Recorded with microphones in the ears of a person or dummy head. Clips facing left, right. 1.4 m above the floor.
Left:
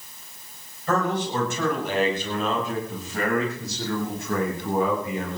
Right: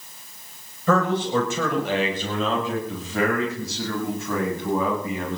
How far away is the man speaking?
About 8 m.